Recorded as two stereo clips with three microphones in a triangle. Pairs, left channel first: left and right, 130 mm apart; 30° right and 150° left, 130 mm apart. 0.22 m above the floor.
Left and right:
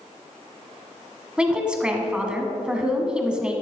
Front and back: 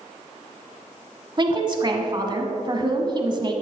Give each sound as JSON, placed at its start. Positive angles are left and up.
{"t": 1.4, "sound": "a woman speaking", "azimuth_deg": -170, "distance_m": 1.5}